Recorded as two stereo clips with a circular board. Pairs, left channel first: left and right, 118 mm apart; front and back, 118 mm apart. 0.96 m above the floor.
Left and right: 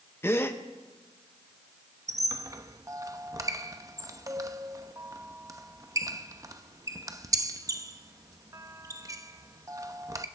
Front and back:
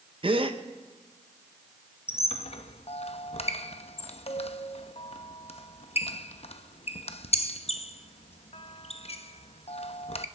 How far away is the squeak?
About 0.7 m.